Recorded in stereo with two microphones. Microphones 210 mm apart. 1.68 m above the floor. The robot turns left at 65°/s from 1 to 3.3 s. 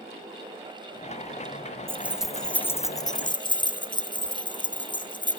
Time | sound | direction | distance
1.9 | keys jangling | 10° right (ahead or behind) | 0.5 m